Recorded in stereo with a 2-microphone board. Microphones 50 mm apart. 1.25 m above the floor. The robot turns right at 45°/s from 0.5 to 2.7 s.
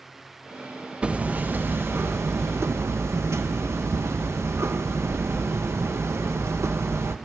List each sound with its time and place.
1.0 s hammering: 155° right, 0.5 m; by 7.2 s 80° right, 0.5 m